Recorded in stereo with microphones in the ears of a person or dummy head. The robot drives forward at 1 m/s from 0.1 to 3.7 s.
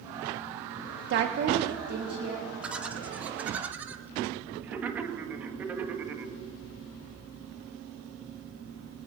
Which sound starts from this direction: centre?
Laughter, at 2.6 s.